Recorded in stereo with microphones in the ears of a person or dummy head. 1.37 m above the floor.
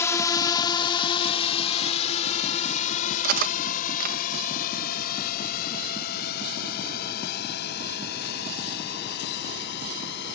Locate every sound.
0.0 s a drone: 20° left (ahead or behind); by 10.4 s 70° left (ahead or behind)
3.2 s cutlery clinking: 45° right (ahead or behind)